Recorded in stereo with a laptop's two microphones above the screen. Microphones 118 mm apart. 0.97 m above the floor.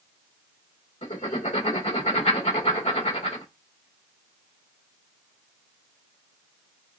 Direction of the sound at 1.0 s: 75° left (ahead or behind).